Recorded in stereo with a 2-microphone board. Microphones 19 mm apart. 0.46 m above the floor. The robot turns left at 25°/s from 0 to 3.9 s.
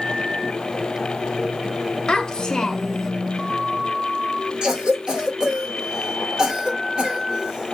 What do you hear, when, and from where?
2.1 s a child speaking: 50° left (ahead or behind), 0.7 m; by 3.1 s 25° left (ahead or behind), 0.7 m
4.6 s a cough: 45° right (ahead or behind), 1.2 m